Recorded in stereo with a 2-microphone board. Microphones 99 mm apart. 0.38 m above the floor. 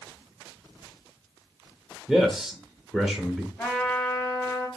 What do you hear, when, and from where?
2.1 s a man speaking: centre (ahead or behind), 1.0 m
3.6 s a trumpet: 10° left (ahead or behind), 4.5 m